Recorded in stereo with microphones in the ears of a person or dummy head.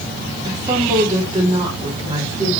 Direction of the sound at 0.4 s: 20° right (ahead or behind).